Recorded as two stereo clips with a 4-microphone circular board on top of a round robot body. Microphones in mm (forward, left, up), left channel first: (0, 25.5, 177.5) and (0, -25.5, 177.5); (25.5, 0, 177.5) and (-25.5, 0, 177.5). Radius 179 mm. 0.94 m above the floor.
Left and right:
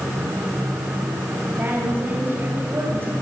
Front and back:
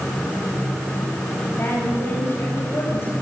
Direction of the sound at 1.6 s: 40° right.